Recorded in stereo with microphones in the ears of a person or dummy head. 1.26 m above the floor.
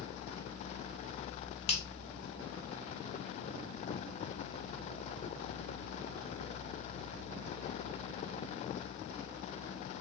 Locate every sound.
1.7 s a finger snap: 30° left (ahead or behind), 0.7 m